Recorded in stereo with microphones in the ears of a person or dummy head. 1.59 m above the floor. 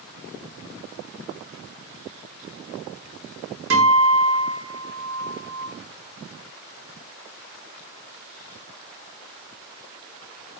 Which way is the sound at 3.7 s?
70° right (ahead or behind).